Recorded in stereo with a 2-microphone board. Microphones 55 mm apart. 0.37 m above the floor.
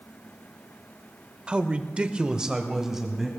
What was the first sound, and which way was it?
A man speaking, 20° right (ahead or behind).